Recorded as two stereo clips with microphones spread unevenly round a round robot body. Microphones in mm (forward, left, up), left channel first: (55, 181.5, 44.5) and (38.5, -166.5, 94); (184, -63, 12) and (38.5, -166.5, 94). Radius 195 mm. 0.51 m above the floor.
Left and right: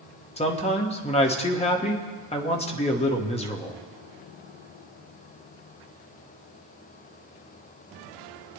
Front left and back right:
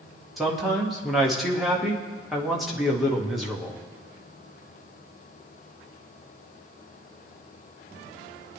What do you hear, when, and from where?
0.4 s a man speaking: 60° left, 1.4 m